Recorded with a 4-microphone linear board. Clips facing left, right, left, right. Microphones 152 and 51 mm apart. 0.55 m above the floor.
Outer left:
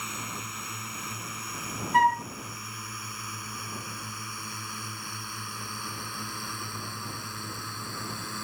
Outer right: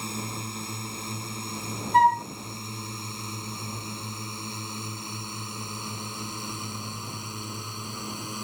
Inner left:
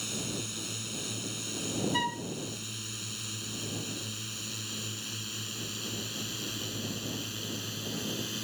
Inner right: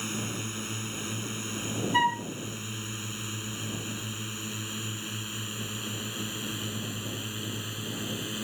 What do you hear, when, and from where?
0.0 s a drone: 35° right (ahead or behind); by 8.4 s 20° right (ahead or behind)
1.9 s a flute: 35° right (ahead or behind)